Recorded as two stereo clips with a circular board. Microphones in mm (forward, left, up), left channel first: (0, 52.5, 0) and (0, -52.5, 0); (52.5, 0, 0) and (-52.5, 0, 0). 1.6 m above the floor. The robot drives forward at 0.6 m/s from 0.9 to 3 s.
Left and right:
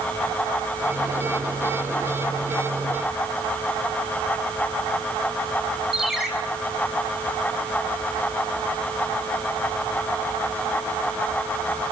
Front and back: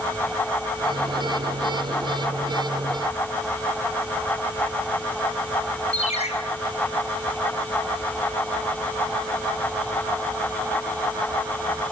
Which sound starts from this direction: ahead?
A ringtone, at 5.9 s.